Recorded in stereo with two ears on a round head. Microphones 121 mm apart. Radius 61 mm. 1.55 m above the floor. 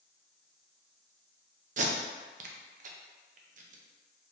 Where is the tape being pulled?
60° right (ahead or behind), 0.5 m.